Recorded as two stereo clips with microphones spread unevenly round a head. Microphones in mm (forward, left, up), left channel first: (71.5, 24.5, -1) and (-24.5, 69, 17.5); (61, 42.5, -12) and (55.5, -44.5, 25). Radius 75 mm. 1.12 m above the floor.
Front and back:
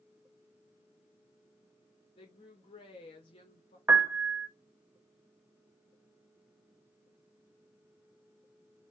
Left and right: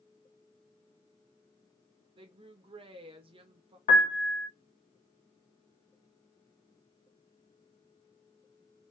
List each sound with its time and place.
2.2 s a woman speaking: 65° right, 1.5 m
3.9 s a piano: 90° left, 0.9 m